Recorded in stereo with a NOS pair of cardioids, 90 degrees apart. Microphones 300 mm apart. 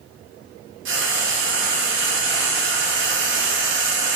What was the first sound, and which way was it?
Frying, 40° right.